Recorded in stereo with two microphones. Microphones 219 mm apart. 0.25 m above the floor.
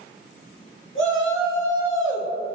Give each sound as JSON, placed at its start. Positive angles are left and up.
{"t": 0.9, "sound": "a shout", "side_deg": 65, "distance_m": 4.0}